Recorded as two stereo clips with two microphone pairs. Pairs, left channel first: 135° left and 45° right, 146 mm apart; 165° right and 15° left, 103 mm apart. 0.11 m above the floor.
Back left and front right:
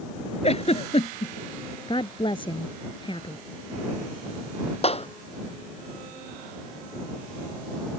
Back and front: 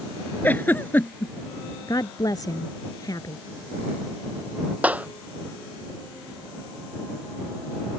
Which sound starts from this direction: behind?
A woman speaking, at 1.9 s.